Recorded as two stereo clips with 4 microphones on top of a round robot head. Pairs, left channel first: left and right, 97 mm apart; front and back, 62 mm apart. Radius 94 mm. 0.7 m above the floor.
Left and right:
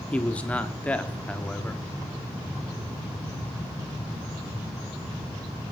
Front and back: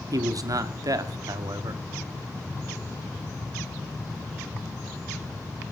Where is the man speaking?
165° left, 1.5 m.